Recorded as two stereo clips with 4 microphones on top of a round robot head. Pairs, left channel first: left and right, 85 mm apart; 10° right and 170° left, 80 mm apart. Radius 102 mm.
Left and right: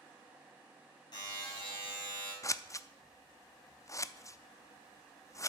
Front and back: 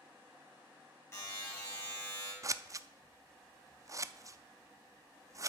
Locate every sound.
1.1 s a buzzer: 45° left, 6.5 m
2.4 s scissors: 135° left, 0.6 m